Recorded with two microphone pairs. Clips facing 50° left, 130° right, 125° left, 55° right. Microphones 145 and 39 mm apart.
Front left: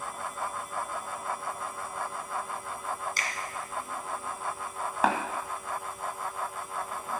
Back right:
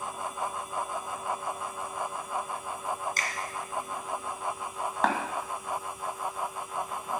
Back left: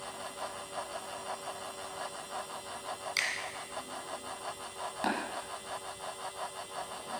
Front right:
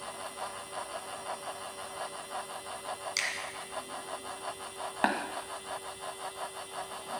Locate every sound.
3.2 s a finger snap: 160° right, 1.7 m
5.0 s tapping: 30° right, 1.8 m